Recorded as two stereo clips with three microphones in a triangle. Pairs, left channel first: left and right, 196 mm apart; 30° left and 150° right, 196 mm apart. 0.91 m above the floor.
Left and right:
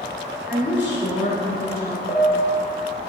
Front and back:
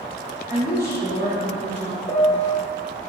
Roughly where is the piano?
Left.